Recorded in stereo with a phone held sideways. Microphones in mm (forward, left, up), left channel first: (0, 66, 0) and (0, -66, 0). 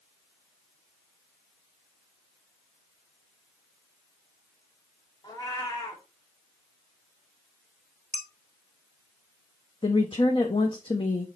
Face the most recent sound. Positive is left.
turn(degrees=40)  # may be behind; listen again after turning